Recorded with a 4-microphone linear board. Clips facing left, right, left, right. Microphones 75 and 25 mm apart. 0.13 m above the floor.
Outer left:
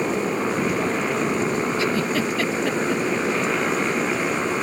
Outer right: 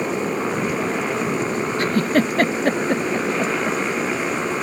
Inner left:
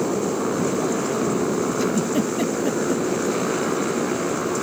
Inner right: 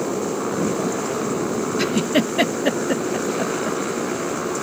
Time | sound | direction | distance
0.0 | a motorcycle | centre (ahead or behind) | ?
1.8 | a giggle | 50° right (ahead or behind) | ?